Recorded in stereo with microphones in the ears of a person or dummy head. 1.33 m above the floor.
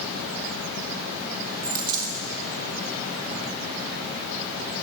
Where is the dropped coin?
50° right (ahead or behind), 1.6 m.